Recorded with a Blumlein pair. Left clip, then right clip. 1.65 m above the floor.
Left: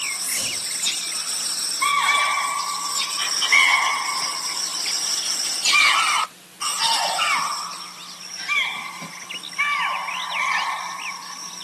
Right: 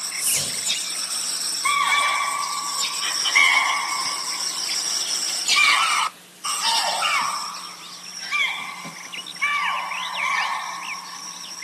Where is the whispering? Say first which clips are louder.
Right 1 dB; 35° right, 0.9 m.